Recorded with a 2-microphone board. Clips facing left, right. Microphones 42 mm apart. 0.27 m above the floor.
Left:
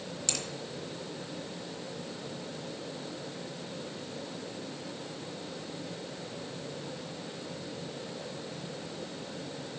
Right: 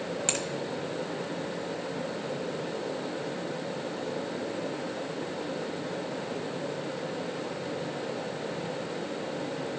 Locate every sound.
0.3 s a finger snap: 40° right (ahead or behind), 1.1 m